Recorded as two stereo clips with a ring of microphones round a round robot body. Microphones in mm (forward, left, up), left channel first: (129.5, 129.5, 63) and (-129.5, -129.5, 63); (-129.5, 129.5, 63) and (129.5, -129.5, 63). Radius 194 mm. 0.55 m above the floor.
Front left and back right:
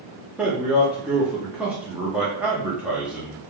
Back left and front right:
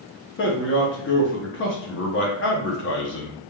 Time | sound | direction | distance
0.4 | a man speaking | 140° left | 0.7 m